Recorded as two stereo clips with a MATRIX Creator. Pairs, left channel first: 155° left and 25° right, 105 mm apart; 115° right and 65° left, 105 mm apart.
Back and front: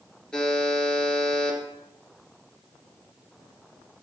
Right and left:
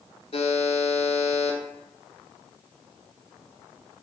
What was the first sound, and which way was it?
A buzzer, 120° right.